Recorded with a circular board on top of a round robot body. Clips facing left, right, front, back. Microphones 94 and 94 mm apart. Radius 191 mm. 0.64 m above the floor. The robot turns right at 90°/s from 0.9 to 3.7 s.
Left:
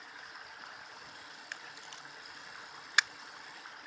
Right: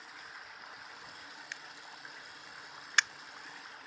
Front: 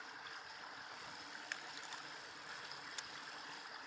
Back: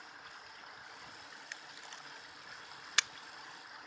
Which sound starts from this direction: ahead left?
A camera shutter, at 1.5 s.